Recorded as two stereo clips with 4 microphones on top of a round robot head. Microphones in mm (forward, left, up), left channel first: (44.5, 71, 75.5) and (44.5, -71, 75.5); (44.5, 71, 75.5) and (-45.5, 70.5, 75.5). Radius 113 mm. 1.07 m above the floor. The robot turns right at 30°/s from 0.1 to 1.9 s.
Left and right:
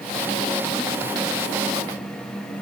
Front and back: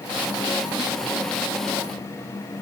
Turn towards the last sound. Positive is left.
No sound to turn to.